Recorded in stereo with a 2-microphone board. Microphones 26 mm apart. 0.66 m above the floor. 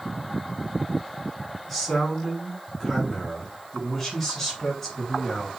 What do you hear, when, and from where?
1.7 s a man speaking: 5° left (ahead or behind), 6.5 m; by 5.5 s 15° left (ahead or behind), 8 m